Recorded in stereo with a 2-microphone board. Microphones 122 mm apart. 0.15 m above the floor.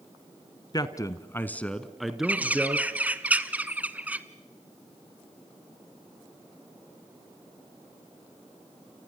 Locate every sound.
0.7 s a man speaking: 30° left (ahead or behind), 1.3 m; by 2.9 s 10° right (ahead or behind), 2.5 m
2.2 s a bird: 10° right (ahead or behind), 1.0 m